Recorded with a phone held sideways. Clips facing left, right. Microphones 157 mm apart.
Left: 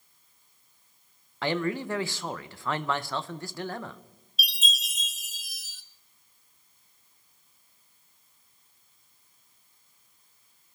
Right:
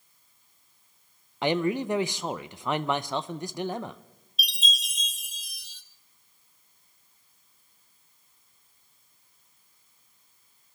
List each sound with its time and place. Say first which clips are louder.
1.4 s a man speaking: right 3 dB; 20° right (ahead or behind), 0.5 m
4.4 s a chime: even; centre (ahead or behind), 0.7 m